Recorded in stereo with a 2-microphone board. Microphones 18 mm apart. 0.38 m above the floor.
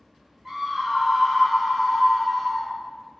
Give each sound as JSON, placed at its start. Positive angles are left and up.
{"t": 0.5, "sound": "a scream", "side_deg": -25, "distance_m": 1.0}